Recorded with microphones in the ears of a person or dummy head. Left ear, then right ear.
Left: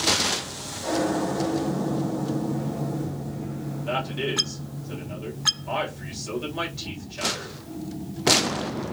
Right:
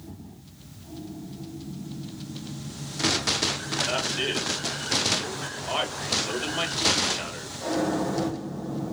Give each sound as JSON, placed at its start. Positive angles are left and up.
{"t": 3.9, "sound": "a man speaking", "side_deg": -25, "distance_m": 1.9}